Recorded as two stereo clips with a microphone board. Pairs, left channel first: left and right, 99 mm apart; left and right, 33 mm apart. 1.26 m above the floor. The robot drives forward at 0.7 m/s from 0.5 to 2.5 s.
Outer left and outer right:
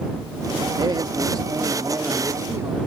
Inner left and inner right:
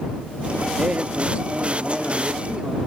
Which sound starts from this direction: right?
A man speaking, at 0.8 s.